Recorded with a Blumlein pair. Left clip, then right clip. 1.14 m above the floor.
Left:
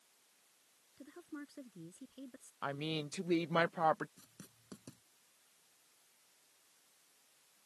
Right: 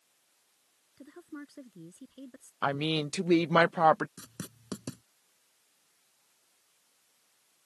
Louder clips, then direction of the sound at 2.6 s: Right 10 dB; 25° right.